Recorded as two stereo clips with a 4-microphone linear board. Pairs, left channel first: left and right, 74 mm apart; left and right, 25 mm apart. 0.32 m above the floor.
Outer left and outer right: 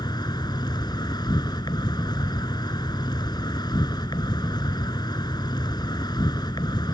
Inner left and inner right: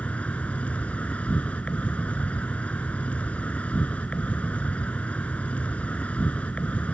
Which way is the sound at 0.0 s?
80° left.